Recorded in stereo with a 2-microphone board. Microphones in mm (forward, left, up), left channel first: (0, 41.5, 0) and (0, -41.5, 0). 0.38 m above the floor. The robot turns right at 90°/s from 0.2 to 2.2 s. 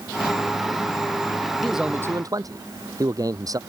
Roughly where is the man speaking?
Behind.